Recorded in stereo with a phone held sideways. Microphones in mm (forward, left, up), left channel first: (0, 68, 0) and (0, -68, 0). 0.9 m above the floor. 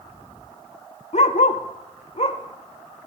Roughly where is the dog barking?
Left.